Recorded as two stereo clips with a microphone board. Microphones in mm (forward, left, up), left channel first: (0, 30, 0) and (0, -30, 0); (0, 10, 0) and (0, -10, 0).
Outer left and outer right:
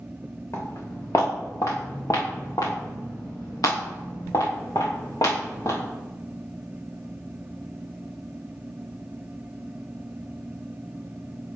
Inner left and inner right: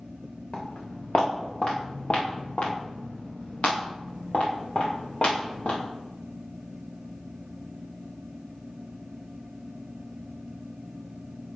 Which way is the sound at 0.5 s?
50° left (ahead or behind).